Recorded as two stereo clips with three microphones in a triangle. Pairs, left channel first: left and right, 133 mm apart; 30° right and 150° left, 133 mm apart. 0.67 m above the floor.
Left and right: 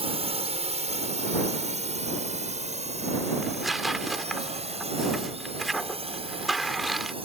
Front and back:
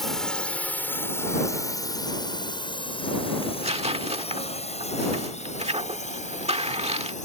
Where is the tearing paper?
Straight behind.